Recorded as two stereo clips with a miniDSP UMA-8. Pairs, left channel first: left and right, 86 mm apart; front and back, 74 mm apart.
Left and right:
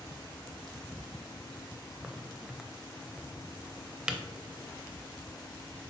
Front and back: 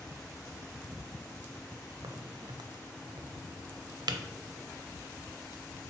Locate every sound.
2.0 s a crack: 170° right, 0.5 m